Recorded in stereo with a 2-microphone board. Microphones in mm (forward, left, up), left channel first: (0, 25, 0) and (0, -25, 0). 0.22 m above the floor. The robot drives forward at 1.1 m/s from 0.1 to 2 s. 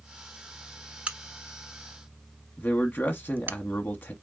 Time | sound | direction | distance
1.1 | a crack | 25° right (ahead or behind) | 1.0 m
2.6 | a man speaking | 40° left (ahead or behind) | 1.4 m